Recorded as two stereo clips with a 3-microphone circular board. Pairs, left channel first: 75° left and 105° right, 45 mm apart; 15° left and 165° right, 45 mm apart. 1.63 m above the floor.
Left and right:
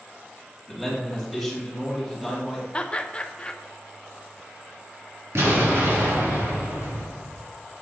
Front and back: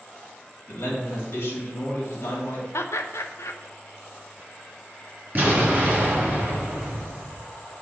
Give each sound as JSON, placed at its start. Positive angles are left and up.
{"t": 0.7, "sound": "a man speaking", "azimuth_deg": -15, "distance_m": 2.5}
{"t": 2.7, "sound": "laughter", "azimuth_deg": 10, "distance_m": 0.7}
{"t": 5.3, "sound": "an explosion", "azimuth_deg": -115, "distance_m": 3.5}